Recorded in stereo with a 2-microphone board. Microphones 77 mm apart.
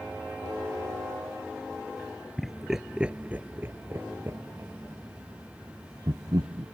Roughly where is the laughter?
Centre.